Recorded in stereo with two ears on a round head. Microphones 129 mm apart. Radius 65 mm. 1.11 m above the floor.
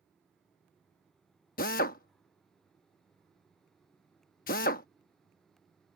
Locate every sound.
1.6 s a drill: 60° left (ahead or behind)